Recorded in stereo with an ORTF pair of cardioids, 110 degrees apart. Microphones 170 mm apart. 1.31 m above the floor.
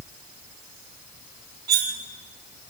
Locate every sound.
1.7 s cutlery clinking: 65° right, 3 m